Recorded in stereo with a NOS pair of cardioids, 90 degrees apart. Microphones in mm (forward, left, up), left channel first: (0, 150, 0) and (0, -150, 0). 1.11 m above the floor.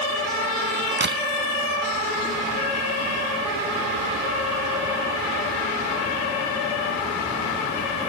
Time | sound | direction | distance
1.0 | a crack | 35° right | ?